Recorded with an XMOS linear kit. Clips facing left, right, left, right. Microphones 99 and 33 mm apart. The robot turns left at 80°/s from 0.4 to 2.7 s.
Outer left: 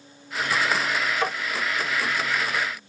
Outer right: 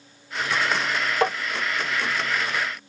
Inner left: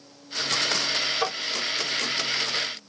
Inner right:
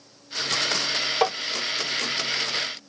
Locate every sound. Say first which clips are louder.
1.2 s tapping: outer right 7 dB, inner right 5 dB; 65° right (ahead or behind), 1.3 m; by 1.3 s 55° right (ahead or behind), 1.3 m